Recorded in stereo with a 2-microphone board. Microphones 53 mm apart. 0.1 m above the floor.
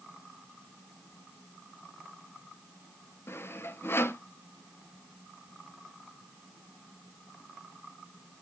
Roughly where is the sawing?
Left.